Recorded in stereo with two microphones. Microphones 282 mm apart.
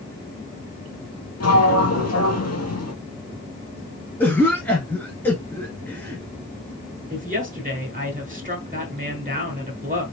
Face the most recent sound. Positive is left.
turn(degrees=-30)  # may be behind; listen again after turning